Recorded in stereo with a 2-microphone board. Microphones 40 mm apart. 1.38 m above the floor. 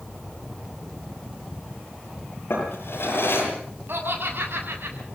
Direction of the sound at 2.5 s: 70° left (ahead or behind).